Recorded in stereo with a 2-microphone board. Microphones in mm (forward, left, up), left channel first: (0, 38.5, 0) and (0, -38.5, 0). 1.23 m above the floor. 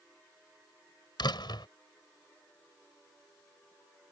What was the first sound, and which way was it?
A door slam, 75° left (ahead or behind).